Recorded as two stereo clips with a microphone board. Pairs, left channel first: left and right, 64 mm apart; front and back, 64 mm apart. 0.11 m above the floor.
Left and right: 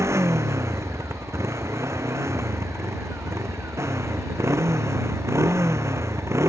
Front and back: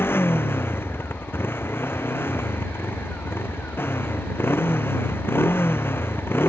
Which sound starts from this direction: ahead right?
A motorcycle, at 0.0 s.